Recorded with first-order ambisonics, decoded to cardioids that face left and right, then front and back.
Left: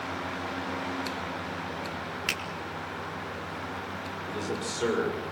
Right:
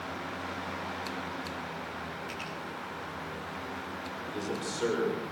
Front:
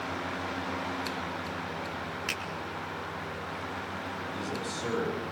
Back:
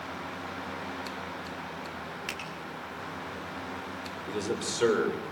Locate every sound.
2.3 s a finger snap: 80° left, 4.5 m
4.3 s a man speaking: 170° left, 7.5 m